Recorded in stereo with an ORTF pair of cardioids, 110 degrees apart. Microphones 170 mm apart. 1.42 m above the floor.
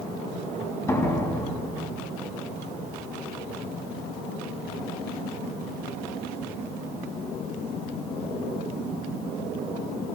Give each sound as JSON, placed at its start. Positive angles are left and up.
{"t": 0.9, "sound": "a door slam", "azimuth_deg": 15, "distance_m": 8.5}